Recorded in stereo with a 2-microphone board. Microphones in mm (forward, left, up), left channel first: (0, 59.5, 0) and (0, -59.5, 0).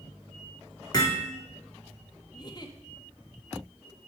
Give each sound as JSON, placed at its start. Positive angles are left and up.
{"t": 0.9, "sound": "hammering", "side_deg": 35, "distance_m": 2.5}
{"t": 2.3, "sound": "a giggle", "side_deg": 35, "distance_m": 0.8}